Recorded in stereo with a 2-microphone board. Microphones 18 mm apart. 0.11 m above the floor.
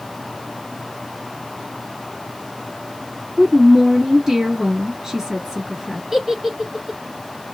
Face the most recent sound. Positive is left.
turn(degrees=-25)  # may be behind; listen again after turning